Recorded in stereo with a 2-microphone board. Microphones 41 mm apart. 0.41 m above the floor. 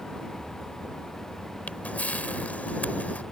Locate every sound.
1.7 s a camera shutter: 40° left (ahead or behind)